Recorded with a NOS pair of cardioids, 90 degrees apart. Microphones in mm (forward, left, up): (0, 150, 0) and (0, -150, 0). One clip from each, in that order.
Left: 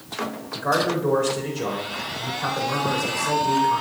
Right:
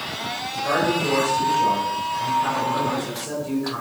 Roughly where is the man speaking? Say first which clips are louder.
Even; ahead left.